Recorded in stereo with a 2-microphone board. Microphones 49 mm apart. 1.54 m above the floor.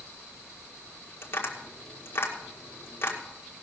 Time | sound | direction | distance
1.2 | tapping | 50° left (ahead or behind) | 2 m